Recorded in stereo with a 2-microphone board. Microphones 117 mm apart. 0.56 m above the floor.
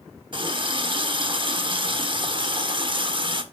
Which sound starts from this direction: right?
A running tap, at 0.3 s.